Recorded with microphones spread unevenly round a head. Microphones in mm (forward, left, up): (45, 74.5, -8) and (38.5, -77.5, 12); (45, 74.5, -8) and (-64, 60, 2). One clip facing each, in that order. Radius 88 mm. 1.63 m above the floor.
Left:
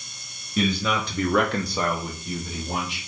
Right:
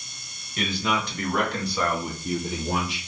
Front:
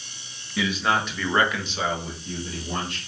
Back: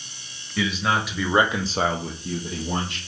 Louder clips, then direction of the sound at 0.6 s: Left 3 dB, even; 95° left.